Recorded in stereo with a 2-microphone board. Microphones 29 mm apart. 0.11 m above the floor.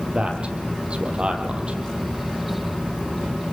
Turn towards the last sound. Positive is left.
turn(degrees=-40)  # may be behind; listen again after turning